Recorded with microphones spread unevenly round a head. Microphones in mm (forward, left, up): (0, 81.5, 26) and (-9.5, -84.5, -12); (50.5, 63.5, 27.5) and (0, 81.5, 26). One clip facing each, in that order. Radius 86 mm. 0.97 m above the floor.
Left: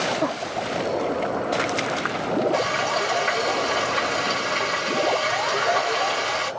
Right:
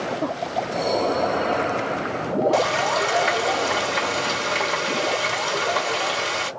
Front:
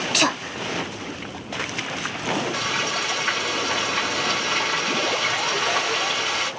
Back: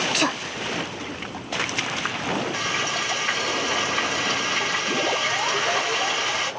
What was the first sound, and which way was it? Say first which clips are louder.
Frying: right 3 dB, front 1 dB; 70° right.